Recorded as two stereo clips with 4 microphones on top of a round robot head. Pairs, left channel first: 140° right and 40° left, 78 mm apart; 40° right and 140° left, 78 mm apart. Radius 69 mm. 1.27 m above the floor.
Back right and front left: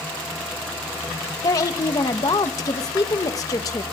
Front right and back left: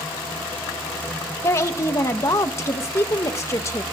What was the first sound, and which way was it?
A woman speaking, 95° right.